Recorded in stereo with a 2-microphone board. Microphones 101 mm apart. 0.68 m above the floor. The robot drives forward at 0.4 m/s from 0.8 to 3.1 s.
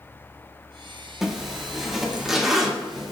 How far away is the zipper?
About 1.0 m.